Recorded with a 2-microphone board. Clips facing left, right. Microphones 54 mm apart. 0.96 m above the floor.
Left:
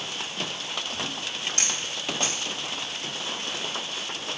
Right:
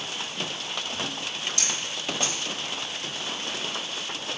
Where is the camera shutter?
40° left (ahead or behind), 2.0 m.